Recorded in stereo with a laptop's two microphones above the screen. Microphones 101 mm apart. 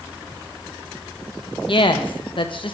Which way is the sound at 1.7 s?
55° left (ahead or behind).